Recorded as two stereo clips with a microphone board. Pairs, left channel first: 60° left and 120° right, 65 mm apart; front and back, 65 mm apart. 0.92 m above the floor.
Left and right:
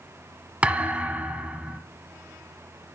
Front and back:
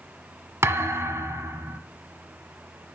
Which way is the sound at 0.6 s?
175° right.